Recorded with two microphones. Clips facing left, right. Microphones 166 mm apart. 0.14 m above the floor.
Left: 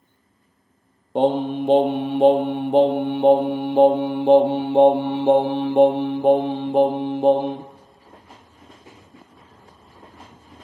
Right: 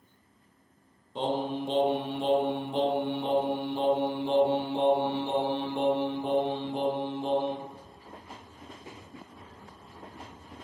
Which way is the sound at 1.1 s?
65° left (ahead or behind).